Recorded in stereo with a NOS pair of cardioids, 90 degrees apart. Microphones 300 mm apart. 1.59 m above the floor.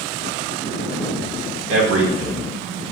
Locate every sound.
1.7 s a man speaking: 55° right, 1.8 m; by 2.8 s 35° right, 2.0 m